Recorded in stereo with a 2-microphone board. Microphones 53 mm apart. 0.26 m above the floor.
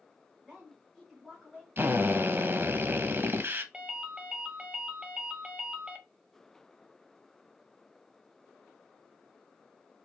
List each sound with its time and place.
0.4 s a woman speaking: 5° right (ahead or behind), 2.5 m
1.8 s a drill: 45° right (ahead or behind), 0.6 m
3.7 s a ringtone: 15° right (ahead or behind), 0.8 m